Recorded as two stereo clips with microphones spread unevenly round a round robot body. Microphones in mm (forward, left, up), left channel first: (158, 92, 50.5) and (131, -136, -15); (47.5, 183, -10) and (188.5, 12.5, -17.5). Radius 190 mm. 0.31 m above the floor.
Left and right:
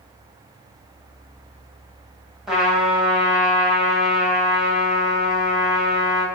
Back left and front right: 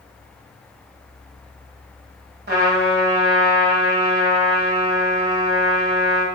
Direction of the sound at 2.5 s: 20° right.